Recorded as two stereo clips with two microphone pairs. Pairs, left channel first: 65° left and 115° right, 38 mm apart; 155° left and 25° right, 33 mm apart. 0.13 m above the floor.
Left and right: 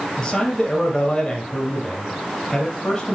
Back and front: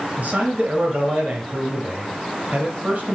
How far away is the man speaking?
About 2.5 m.